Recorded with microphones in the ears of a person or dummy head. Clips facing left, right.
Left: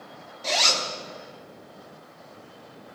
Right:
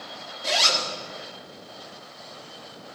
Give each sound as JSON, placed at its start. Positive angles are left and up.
{"t": 0.4, "sound": "a zipper", "side_deg": -5, "distance_m": 1.7}